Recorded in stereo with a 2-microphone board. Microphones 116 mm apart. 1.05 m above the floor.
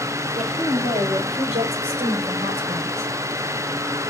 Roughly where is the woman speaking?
Right.